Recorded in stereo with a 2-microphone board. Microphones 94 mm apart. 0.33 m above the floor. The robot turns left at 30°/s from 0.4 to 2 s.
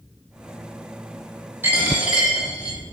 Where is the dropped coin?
20° right (ahead or behind), 1.1 m; by 2.8 s 10° right (ahead or behind), 1.1 m.